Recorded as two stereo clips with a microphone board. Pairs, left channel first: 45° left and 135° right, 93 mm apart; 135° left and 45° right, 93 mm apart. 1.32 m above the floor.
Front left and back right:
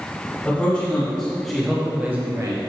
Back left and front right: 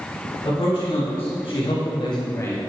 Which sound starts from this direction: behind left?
A man speaking, at 0.5 s.